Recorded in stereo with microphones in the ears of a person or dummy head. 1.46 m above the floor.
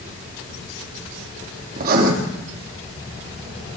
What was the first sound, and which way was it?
Writing, 55° right (ahead or behind).